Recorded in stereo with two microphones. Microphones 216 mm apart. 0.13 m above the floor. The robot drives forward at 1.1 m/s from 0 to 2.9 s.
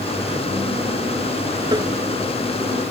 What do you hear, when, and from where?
1.7 s tapping: 20° right (ahead or behind)